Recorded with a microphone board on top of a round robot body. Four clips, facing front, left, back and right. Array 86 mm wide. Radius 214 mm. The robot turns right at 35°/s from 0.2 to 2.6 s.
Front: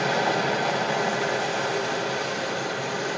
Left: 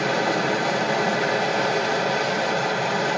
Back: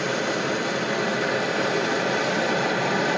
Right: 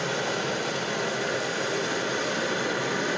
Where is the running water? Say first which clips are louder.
Left 6 dB, front 2 dB; 30° left, 1.6 m; by 3.2 s 115° left, 1.6 m.